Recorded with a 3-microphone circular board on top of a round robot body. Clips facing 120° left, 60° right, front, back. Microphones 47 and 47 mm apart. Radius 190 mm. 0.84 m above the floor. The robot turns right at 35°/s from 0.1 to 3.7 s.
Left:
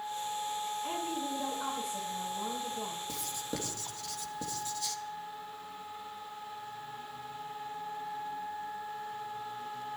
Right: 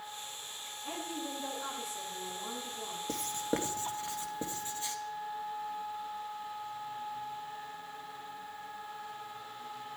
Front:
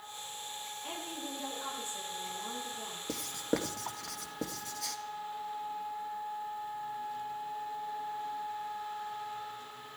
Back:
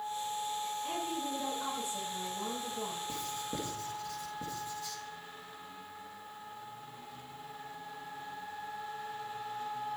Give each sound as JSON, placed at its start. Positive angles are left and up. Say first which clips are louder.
{"t": 0.8, "sound": "a woman speaking", "louder": "left 4 dB, back 5 dB", "azimuth_deg": 75, "distance_m": 9.0}
{"t": 3.1, "sound": "writing", "louder": "right 4 dB, front 4 dB", "azimuth_deg": -20, "distance_m": 1.9}